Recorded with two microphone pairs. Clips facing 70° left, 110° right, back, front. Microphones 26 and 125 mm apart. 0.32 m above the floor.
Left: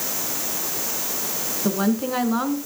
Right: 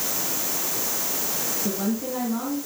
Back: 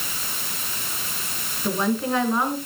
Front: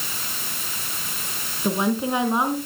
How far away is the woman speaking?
About 3 m.